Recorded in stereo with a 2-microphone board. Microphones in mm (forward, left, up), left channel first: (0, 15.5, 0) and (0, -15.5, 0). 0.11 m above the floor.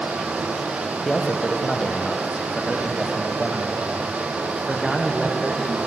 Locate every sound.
1.1 s a man speaking: 20° left (ahead or behind), 3 m; by 5.8 s centre (ahead or behind), 5 m